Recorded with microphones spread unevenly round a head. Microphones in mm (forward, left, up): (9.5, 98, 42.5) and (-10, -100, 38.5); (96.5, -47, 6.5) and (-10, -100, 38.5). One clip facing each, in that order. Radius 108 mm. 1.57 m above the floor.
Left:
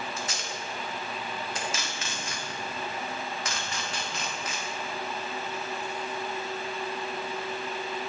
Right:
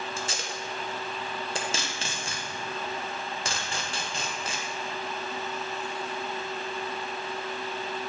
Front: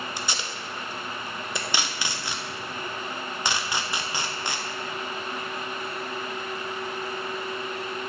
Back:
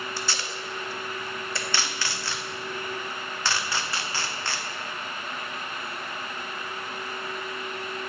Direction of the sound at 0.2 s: 55° right.